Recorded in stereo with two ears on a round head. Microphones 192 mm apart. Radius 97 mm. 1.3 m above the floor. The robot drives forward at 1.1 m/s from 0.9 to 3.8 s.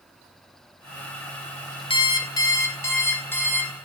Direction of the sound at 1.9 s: 25° left (ahead or behind).